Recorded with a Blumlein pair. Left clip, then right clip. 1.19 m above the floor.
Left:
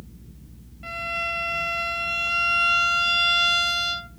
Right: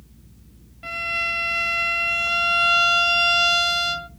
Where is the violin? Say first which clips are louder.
Right 3 dB; 10° right, 1.1 m.